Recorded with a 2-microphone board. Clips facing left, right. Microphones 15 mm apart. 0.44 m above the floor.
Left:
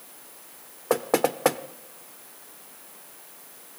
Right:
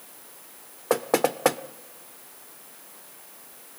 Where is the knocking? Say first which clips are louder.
Even; centre (ahead or behind), 0.7 m.